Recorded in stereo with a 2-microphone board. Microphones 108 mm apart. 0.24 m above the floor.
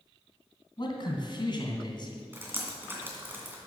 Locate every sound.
0.8 s a man speaking: 45° left (ahead or behind), 2 m
2.3 s dripping: 20° right (ahead or behind), 2 m